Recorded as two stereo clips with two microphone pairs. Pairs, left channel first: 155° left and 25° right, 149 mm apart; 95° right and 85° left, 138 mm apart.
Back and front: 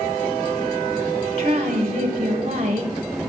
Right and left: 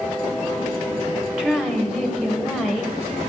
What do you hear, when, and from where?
1.4 s a woman speaking: straight ahead, 0.9 m